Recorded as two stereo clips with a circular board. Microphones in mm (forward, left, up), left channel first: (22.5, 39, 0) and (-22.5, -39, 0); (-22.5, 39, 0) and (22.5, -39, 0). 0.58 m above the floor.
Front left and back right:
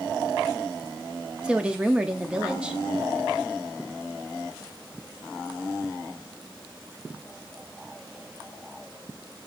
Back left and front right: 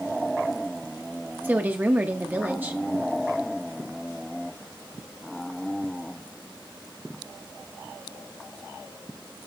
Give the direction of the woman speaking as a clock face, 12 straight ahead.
2 o'clock.